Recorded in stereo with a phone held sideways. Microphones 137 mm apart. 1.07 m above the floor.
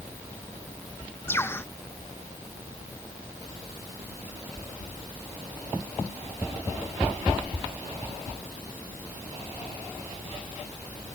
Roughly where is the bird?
Centre.